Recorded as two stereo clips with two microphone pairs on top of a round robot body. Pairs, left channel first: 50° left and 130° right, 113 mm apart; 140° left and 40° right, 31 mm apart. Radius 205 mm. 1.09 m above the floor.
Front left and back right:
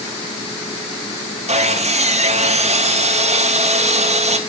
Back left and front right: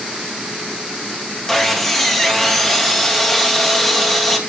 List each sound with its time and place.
1.5 s sawing: 140° right, 3.5 m